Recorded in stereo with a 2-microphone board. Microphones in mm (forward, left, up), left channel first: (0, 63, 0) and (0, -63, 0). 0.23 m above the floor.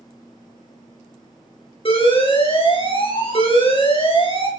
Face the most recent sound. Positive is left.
turn(degrees=45)  # may be behind; listen again after turning